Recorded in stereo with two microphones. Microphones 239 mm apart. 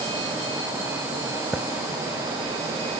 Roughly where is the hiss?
Centre.